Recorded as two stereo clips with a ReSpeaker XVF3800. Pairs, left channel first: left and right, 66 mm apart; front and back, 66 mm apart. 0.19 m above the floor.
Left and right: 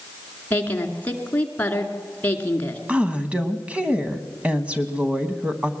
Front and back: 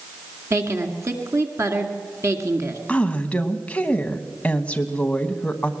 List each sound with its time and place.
0.5 s a woman speaking: 150° left, 2 m
2.9 s a woman speaking: 45° right, 1.2 m